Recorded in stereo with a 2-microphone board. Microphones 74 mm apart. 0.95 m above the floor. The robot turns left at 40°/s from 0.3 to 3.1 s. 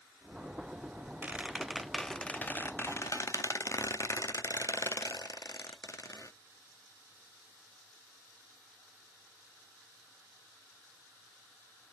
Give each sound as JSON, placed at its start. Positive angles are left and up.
{"t": 1.2, "sound": "a squeak", "azimuth_deg": -155, "distance_m": 0.6}